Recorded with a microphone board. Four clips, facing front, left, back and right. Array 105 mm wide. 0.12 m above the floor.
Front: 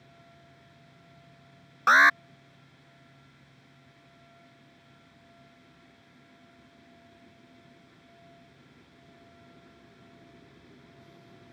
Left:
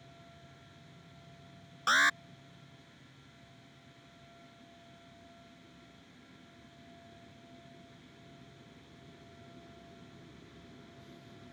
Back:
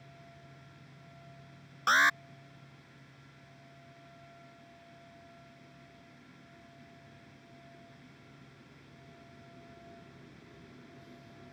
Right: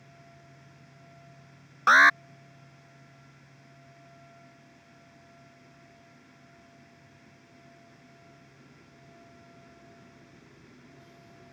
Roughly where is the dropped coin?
I don't hear a dropped coin.